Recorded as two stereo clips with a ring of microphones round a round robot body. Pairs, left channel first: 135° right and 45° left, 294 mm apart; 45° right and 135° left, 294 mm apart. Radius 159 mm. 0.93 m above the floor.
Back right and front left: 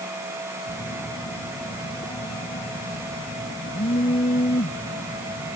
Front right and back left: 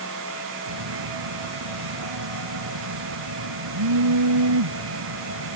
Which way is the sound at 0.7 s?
155° left.